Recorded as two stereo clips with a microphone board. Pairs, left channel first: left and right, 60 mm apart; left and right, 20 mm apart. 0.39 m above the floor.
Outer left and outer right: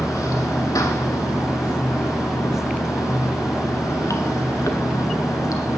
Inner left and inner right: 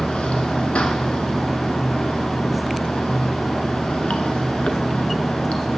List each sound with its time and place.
0.0 s running water: 80° left, 0.9 m